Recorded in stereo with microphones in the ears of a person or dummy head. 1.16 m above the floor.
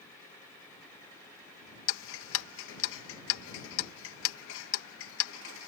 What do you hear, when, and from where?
1.9 s ticking: 70° left (ahead or behind)